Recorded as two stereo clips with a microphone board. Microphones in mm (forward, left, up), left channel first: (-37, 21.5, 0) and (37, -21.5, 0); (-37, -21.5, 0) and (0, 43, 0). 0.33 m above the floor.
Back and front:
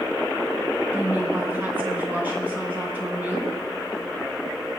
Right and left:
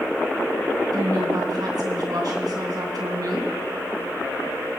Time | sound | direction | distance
0.9 | a woman speaking | 40° left | 3 m